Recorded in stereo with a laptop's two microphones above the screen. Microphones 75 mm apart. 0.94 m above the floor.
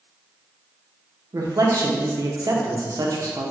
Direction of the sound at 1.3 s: 55° right (ahead or behind).